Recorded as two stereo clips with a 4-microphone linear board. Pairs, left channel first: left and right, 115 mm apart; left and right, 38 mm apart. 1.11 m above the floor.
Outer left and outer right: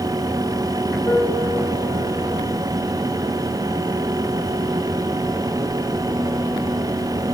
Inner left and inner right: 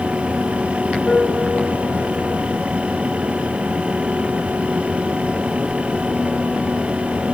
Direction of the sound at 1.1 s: 25° left (ahead or behind).